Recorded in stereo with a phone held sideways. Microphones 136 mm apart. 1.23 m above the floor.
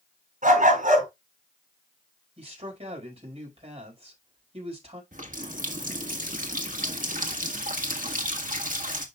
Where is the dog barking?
70° right (ahead or behind), 4.5 m.